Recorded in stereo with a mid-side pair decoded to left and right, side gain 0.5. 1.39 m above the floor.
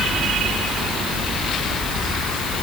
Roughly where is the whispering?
No whispering in this recording.